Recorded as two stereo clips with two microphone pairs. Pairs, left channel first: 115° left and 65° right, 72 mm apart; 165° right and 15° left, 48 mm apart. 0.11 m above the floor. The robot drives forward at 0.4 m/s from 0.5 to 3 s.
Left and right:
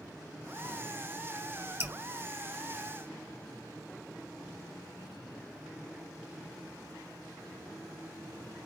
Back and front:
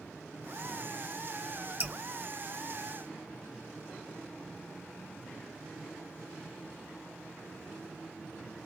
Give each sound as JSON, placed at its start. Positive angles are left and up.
{"t": 1.8, "sound": "dripping", "azimuth_deg": -20, "distance_m": 1.5}